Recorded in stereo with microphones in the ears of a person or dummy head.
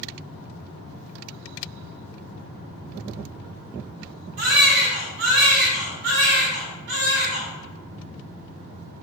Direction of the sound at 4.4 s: 60° right (ahead or behind).